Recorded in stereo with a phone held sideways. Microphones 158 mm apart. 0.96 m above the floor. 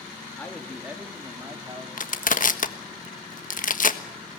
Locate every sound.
0.4 s a man speaking: 10° left (ahead or behind), 2 m; by 1.9 s 30° right (ahead or behind), 3 m
2.0 s crushing: 55° left (ahead or behind), 1.3 m